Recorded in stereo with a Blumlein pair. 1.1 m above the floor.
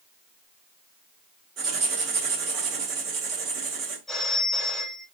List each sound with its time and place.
1.6 s writing: 35° right, 1.7 m
4.1 s a phone ringing: straight ahead, 1.8 m